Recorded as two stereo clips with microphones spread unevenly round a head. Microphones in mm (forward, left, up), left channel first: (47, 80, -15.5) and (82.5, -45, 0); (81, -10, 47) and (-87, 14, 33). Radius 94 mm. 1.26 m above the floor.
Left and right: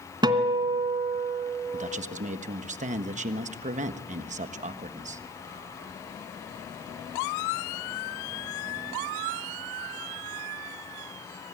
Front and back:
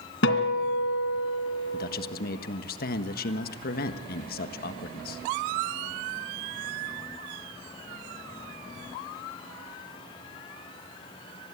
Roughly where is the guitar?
Ahead right.